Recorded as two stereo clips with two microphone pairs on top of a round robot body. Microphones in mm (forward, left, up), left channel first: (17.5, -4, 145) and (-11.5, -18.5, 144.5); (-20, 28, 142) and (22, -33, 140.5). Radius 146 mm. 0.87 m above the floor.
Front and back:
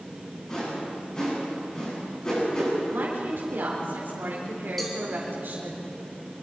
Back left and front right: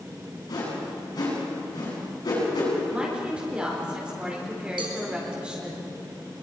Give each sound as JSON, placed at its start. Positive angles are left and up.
{"t": 0.5, "sound": "a whoosh", "azimuth_deg": 95, "distance_m": 9.5}
{"t": 2.9, "sound": "a woman speaking", "azimuth_deg": -130, "distance_m": 4.0}
{"t": 4.8, "sound": "a cowbell", "azimuth_deg": -60, "distance_m": 3.5}